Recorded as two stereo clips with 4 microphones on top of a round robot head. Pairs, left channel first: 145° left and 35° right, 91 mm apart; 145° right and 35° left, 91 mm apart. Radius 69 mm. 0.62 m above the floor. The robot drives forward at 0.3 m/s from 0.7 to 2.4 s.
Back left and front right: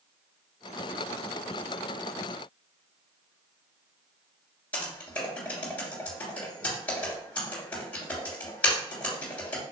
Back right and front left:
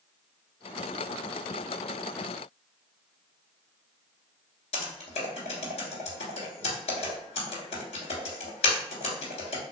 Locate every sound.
4.7 s typing on a keyboard: 140° right, 1.9 m